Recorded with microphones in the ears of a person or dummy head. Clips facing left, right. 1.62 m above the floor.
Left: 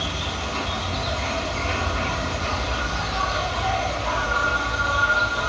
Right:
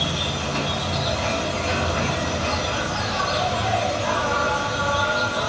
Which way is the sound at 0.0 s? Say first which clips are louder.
Right 3 dB; 55° right (ahead or behind).